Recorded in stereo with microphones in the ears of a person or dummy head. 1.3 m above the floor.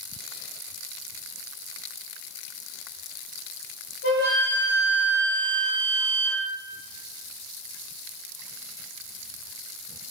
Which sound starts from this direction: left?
A flute, at 4.0 s.